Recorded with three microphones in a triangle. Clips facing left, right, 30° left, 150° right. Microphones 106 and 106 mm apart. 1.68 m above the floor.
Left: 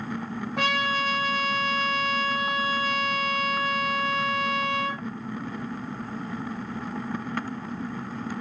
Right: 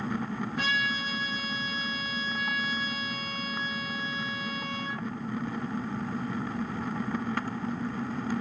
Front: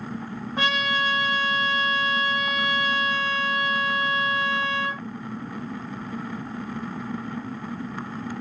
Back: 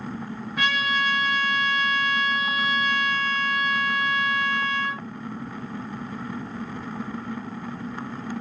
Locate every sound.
0.6 s a trumpet: 85° left, 3.5 m